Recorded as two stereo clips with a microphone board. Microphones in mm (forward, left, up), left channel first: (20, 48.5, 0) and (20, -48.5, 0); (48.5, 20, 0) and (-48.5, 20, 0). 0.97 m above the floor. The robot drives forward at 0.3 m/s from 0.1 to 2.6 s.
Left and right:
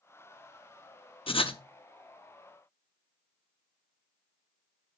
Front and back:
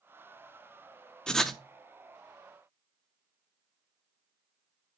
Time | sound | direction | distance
1.3 | writing | 80° left | 0.8 m